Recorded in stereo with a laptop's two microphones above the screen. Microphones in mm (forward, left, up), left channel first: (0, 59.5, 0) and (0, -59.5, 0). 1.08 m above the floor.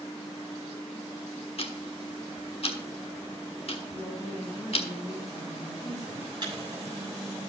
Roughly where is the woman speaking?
Left.